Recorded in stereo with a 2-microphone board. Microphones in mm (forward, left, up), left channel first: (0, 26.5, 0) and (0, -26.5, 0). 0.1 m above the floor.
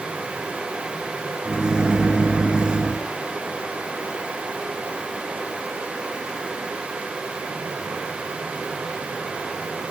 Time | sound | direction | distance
1.4 | a microwave | 20° right (ahead or behind) | 1.0 m